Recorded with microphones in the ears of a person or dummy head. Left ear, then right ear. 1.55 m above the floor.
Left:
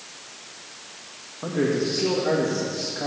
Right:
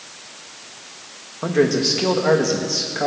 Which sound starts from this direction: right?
A man speaking, at 1.4 s.